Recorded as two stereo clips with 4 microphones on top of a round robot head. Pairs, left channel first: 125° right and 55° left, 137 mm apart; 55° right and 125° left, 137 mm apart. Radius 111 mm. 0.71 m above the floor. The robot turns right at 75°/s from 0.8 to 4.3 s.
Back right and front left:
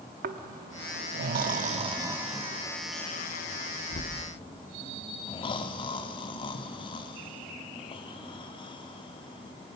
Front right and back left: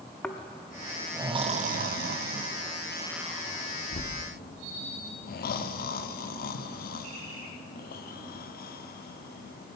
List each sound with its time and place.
0.2 s snoring: 30° left, 0.5 m; by 9.8 s 70° right, 0.5 m